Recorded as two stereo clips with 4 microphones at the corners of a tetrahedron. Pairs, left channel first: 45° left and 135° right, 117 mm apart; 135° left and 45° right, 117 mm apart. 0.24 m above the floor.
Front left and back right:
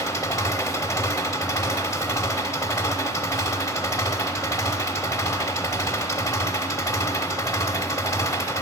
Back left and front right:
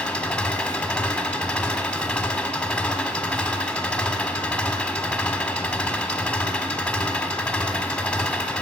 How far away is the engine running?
About 0.9 m.